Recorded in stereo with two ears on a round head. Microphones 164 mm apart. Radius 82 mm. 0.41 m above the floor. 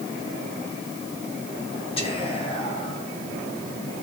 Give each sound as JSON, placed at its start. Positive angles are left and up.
{"t": 2.0, "sound": "whispering", "side_deg": 30, "distance_m": 2.5}